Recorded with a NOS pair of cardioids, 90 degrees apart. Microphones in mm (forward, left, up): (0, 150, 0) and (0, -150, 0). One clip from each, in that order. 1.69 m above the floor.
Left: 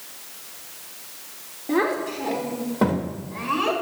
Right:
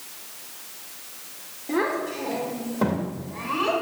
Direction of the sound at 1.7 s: 20° left.